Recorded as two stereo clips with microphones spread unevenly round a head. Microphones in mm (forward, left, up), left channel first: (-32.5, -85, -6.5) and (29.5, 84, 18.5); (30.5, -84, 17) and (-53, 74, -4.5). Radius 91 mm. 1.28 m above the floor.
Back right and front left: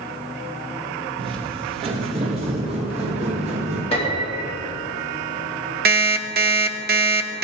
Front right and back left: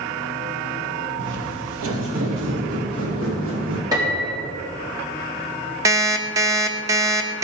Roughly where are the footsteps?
Behind left.